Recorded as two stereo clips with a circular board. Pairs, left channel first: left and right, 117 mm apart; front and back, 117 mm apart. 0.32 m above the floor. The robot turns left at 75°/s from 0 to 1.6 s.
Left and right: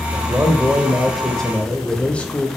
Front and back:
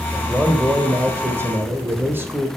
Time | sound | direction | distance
0.1 | a man speaking | 100° right | 0.9 m